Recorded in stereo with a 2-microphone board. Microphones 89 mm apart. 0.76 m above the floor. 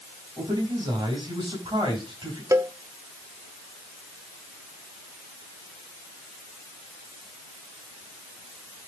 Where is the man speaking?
65° right (ahead or behind), 6.5 m.